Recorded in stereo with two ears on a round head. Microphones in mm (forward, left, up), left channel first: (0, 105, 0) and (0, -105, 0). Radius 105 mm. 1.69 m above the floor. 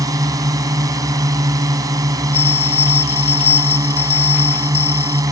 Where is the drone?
15° right (ahead or behind).